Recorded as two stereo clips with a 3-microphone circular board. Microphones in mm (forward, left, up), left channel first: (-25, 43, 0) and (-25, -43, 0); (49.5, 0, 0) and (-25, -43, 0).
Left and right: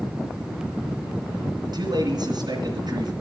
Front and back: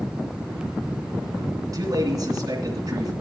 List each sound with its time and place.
1.6 s a man speaking: 110° right, 2.5 m